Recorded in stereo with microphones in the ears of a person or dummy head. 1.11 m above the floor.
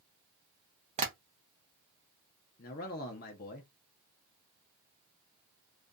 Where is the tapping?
35° right (ahead or behind), 0.5 m.